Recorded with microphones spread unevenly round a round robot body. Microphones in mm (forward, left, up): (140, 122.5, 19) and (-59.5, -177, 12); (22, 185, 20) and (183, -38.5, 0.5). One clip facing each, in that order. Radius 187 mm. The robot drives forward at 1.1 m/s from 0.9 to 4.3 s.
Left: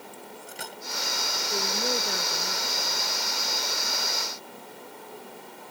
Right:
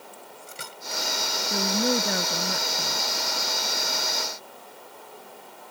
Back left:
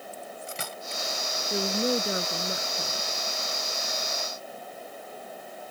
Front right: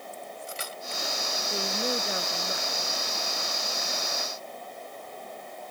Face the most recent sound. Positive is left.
turn(degrees=-160)